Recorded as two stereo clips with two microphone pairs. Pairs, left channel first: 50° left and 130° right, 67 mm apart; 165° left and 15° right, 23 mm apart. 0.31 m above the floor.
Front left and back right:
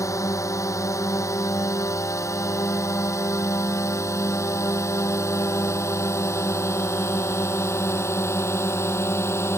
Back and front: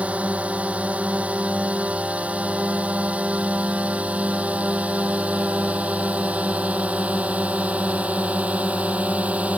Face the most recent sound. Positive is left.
turn(degrees=0)